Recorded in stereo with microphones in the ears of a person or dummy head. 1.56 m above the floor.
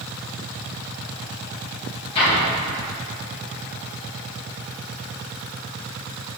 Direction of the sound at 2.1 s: 30° left (ahead or behind).